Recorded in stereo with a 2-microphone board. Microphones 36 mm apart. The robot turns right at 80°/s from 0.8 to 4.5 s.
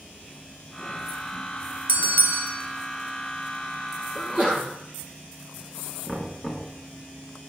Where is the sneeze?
20° right (ahead or behind), 4 m; by 4.6 s 50° right (ahead or behind), 4 m.